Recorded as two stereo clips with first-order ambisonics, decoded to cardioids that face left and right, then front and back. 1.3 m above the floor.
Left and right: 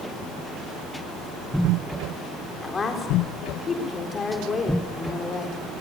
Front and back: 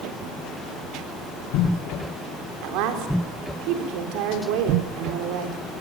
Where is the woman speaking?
160° left, 3.5 m.